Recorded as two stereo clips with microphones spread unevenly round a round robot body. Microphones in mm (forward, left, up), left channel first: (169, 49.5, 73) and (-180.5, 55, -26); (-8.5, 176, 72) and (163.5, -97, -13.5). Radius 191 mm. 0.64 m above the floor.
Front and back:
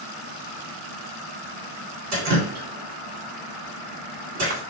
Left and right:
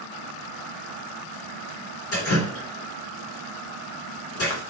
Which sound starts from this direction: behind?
Dripping, at 2.1 s.